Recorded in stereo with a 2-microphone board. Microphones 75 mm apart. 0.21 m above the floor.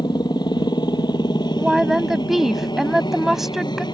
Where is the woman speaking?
5° right (ahead or behind).